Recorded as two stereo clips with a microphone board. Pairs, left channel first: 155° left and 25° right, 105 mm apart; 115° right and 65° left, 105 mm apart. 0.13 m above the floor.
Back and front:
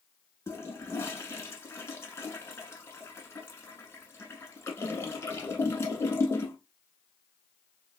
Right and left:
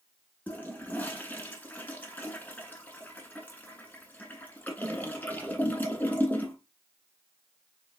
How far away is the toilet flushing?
About 1.0 m.